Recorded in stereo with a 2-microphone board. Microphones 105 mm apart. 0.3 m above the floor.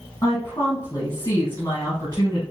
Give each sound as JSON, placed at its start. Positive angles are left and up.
{"t": 0.2, "sound": "a woman speaking", "side_deg": 30, "distance_m": 1.8}